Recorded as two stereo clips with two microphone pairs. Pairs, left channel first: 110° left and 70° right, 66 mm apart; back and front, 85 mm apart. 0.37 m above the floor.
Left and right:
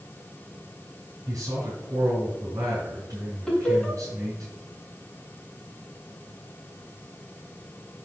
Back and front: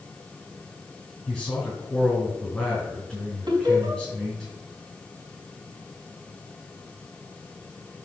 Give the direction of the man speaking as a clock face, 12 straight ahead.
3 o'clock.